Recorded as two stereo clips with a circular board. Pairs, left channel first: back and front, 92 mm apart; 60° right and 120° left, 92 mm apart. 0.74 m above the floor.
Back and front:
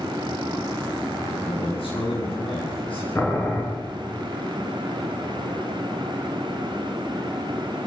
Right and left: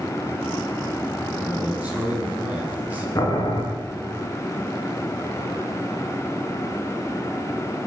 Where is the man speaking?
165° right, 9.5 m.